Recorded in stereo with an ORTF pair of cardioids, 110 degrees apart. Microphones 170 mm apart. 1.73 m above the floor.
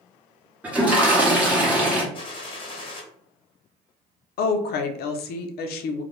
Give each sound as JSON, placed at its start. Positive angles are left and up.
{"t": 0.6, "sound": "a toilet flushing", "azimuth_deg": -10, "distance_m": 0.8}
{"t": 2.1, "sound": "a gunshot", "azimuth_deg": 30, "distance_m": 0.8}
{"t": 4.4, "sound": "a woman speaking", "azimuth_deg": 70, "distance_m": 0.5}